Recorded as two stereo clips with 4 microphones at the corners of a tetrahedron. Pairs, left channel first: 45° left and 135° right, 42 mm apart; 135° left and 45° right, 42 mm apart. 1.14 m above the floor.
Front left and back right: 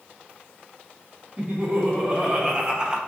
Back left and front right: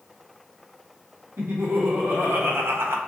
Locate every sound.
1.4 s laughter: 70° right, 1.8 m; by 3.0 s 65° right, 0.5 m